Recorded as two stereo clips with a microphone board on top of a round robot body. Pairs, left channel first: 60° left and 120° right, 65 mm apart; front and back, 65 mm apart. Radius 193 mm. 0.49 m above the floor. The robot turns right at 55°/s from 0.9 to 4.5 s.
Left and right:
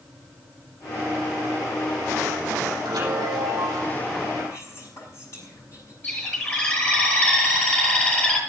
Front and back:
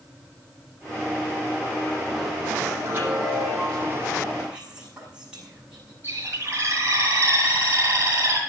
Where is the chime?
125° right, 9 m; by 4.0 s 65° right, 9 m.